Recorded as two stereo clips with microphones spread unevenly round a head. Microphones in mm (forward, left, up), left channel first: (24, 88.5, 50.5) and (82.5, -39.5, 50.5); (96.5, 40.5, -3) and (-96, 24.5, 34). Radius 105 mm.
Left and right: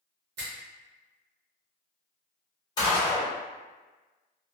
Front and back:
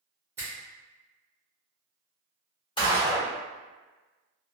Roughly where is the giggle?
No giggle in this recording.